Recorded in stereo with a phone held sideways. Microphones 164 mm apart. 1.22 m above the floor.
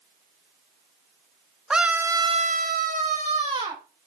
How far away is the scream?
About 1.2 m.